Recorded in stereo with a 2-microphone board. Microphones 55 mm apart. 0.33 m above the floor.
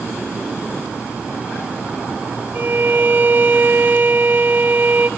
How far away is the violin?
About 1.2 m.